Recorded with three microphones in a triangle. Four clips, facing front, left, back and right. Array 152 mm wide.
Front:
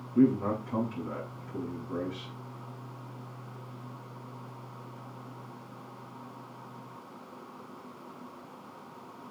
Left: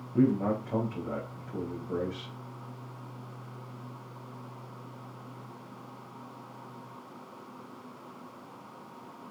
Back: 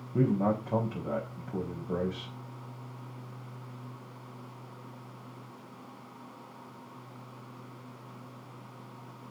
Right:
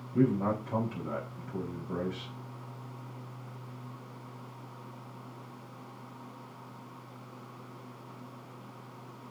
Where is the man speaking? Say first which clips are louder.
Left 2 dB, front 3 dB; 175° left, 5.5 m.